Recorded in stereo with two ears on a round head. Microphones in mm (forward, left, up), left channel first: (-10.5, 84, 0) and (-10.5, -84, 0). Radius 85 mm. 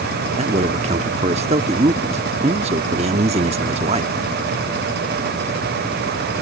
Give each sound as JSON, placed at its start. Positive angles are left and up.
{"t": 0.4, "sound": "a man speaking", "side_deg": -35}